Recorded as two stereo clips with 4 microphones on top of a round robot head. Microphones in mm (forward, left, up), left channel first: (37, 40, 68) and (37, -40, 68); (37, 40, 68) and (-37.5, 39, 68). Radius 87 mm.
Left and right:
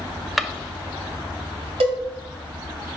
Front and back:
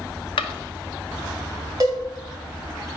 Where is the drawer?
Straight ahead, 0.5 m.